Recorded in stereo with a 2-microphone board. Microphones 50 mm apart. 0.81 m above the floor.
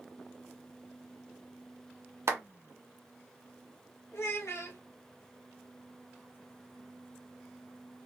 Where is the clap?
60° right (ahead or behind), 1.1 m.